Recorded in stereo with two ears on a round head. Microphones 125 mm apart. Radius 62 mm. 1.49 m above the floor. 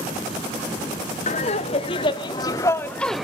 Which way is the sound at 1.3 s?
45° left (ahead or behind).